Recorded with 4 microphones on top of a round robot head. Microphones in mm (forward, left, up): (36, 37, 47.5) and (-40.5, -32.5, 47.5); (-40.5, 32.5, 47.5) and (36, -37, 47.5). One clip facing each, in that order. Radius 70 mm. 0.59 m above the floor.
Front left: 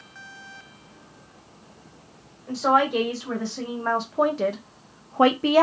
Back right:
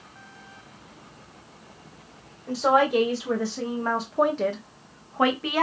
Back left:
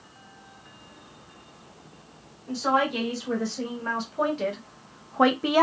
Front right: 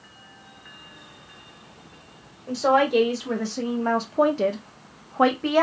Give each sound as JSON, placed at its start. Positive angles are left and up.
{"t": 2.5, "sound": "a woman speaking", "azimuth_deg": -65, "distance_m": 1.8}